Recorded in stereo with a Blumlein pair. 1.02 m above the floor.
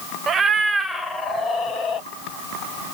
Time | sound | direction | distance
0.3 | a cat meowing | 25° right | 0.6 m